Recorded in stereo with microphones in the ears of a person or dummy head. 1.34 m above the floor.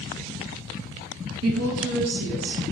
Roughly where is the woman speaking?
Right.